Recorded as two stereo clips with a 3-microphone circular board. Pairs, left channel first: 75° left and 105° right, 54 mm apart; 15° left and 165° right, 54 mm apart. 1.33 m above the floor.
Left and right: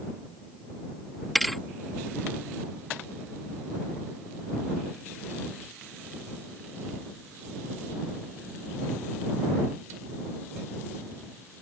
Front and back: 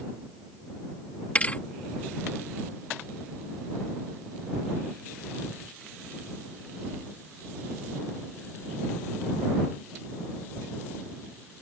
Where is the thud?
15° right.